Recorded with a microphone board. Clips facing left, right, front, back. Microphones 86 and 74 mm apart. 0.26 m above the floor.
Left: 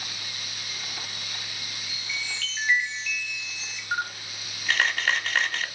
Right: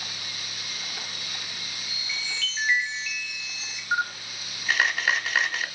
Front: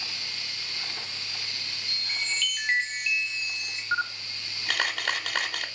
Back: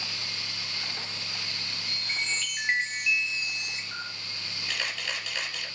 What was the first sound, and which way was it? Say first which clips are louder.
A chime: left 1 dB, back 1 dB; 175° right.